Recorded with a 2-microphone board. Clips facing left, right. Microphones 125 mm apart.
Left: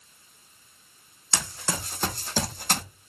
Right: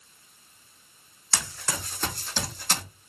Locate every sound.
1.3 s running footsteps: 20° left (ahead or behind), 1.6 m; by 2.8 s 55° left (ahead or behind), 1.6 m